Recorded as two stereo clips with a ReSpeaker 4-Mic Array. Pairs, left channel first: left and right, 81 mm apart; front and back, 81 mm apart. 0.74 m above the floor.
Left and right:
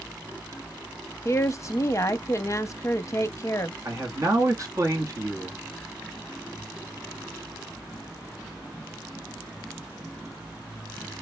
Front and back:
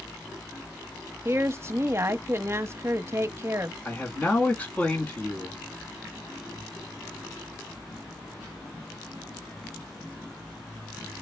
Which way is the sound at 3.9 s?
60° right.